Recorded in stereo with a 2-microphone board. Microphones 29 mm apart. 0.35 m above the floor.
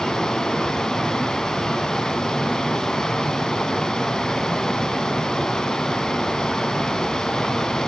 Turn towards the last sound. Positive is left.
turn(degrees=20)  # may be behind; listen again after turning